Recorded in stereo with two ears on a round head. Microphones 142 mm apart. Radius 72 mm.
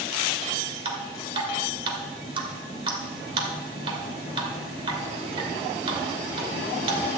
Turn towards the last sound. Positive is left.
turn(degrees=-35)  # may be behind; listen again after turning